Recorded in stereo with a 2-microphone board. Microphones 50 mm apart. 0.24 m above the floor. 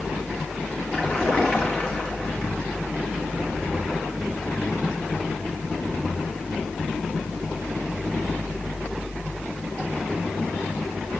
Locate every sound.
0.9 s a splash: 20° left (ahead or behind), 3.5 m